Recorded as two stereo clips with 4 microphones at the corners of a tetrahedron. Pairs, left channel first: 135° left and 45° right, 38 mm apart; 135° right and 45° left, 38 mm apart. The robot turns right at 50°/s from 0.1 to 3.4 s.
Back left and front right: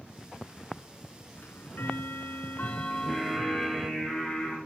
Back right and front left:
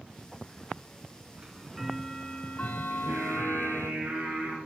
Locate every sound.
1.4 s ticking: 110° left, 0.7 m; by 3.9 s 145° right, 0.7 m
2.9 s singing: 35° left, 3.5 m; by 4.6 s 60° left, 3.5 m